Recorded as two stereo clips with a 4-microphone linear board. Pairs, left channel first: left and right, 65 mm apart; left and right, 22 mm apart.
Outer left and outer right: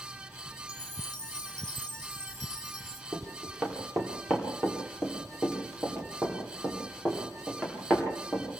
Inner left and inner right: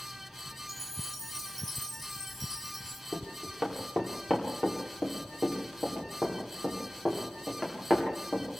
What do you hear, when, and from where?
0.7 s a chime: 10° left (ahead or behind), 1.0 m
3.1 s running footsteps: 5° right (ahead or behind), 8 m; by 8.4 s centre (ahead or behind), 11.5 m